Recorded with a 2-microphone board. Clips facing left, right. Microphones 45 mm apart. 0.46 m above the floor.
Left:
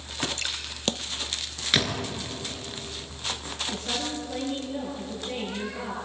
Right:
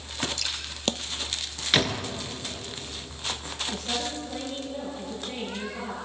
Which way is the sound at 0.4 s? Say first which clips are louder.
Left 1 dB; 35° left (ahead or behind).